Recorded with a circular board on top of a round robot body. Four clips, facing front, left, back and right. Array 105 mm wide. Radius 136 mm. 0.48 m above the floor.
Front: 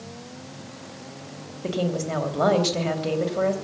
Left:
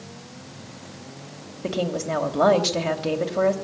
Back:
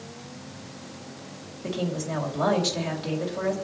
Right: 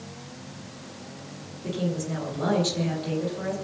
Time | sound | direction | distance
1.6 | a woman speaking | 70° left | 3 m